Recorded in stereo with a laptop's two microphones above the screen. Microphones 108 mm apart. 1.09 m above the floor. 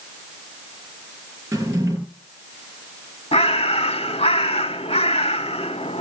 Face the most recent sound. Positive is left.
turn(degrees=75)  # may be behind; listen again after turning